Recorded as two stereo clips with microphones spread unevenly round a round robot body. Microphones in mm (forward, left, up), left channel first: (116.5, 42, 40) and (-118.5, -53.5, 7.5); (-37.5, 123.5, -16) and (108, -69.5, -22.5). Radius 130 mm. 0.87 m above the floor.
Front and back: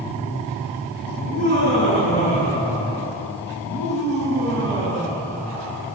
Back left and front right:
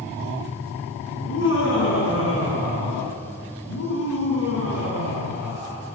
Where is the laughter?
90° left, 9 m; by 5.8 s 105° left, 8 m.